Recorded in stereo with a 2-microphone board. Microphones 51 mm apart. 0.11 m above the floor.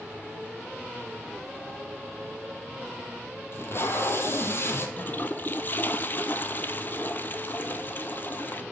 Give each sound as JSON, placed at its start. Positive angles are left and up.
{"t": 3.5, "sound": "tape being pulled", "side_deg": 50, "distance_m": 1.9}
{"t": 5.0, "sound": "a toilet flushing", "side_deg": 40, "distance_m": 0.7}